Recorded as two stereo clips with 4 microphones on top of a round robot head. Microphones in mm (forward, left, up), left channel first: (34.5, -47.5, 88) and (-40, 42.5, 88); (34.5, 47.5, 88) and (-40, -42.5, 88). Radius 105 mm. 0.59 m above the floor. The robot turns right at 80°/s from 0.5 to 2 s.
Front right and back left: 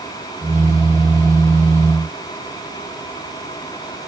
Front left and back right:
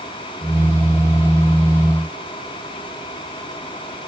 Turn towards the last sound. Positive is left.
No sound to turn to.